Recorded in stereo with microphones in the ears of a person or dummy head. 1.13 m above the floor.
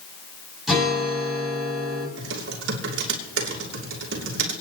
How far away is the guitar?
About 7 m.